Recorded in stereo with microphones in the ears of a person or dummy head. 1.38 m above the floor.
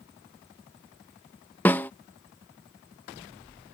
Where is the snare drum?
10° left (ahead or behind).